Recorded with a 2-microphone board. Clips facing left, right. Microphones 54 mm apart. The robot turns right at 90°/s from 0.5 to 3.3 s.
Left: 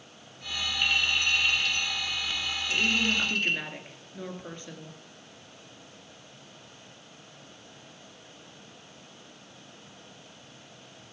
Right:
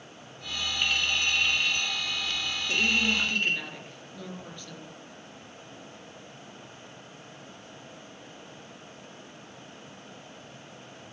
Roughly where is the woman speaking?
Ahead right.